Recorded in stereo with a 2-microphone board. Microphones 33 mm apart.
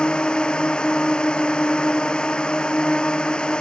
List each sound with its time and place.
0.0 s a drone: 30° left (ahead or behind)